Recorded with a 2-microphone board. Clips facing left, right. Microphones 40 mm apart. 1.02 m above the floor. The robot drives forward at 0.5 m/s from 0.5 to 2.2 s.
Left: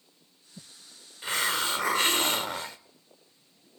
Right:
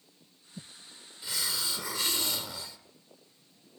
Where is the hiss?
45° left (ahead or behind), 1.0 m; by 2.8 s 50° left (ahead or behind), 0.9 m.